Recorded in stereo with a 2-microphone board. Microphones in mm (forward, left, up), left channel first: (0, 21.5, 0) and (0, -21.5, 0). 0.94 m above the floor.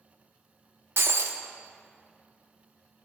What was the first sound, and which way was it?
Breaking glass, 65° right (ahead or behind).